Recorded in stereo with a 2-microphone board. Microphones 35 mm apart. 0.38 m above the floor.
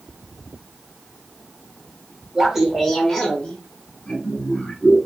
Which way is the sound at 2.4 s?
15° right (ahead or behind).